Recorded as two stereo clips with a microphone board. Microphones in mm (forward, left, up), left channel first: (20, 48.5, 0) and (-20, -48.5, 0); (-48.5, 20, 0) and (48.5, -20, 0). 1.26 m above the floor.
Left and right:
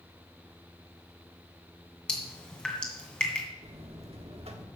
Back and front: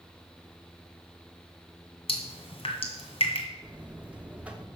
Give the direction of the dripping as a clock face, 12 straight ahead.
7 o'clock.